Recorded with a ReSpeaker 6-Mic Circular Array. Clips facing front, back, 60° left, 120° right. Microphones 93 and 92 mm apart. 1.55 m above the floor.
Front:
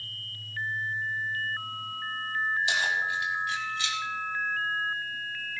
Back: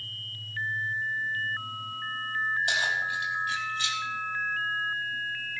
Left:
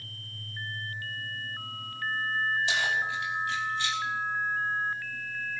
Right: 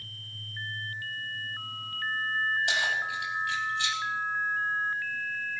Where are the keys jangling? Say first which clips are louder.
Front 1 dB, left 1 dB; 145° right, 6 m; by 4.0 s 130° right, 4.5 m.